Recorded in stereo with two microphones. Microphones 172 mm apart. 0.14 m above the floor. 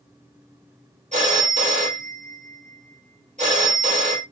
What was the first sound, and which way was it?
A phone ringing, 50° right (ahead or behind).